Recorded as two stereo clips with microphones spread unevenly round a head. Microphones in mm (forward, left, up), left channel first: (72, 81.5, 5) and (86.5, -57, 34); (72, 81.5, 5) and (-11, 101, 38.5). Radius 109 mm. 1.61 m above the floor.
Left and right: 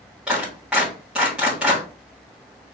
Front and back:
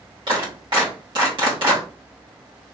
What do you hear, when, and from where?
0.3 s a clap: 165° right, 1.8 m